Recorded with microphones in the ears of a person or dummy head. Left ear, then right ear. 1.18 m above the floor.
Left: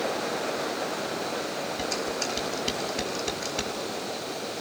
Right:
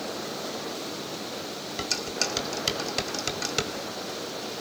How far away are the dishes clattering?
About 4 m.